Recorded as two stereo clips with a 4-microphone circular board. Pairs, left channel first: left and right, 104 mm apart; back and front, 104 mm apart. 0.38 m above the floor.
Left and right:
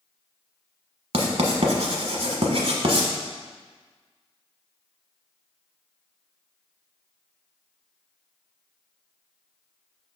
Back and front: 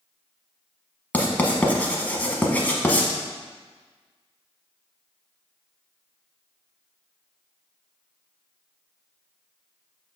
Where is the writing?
105° right, 0.9 m.